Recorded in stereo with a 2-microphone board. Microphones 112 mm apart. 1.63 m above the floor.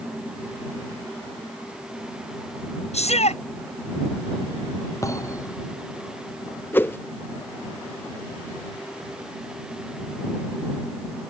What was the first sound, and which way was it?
A shout, 75° left (ahead or behind).